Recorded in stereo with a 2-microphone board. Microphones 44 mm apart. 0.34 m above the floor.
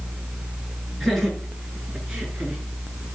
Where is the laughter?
Centre (ahead or behind), 5.5 m; by 2.6 s 15° right (ahead or behind), 5 m.